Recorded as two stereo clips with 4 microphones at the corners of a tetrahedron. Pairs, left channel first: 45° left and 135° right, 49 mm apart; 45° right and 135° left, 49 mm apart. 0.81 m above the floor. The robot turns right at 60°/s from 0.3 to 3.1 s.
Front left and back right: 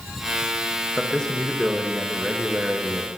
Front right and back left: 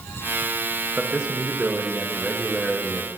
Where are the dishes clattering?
I don't hear dishes clattering.